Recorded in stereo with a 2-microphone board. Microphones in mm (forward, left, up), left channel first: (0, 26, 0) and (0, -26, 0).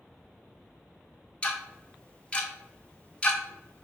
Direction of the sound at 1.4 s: 25° left (ahead or behind).